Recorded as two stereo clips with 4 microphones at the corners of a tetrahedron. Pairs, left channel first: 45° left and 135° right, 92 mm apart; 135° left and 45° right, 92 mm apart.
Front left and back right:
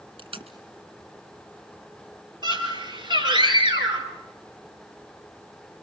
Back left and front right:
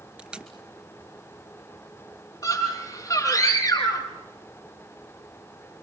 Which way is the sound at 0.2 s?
125° right.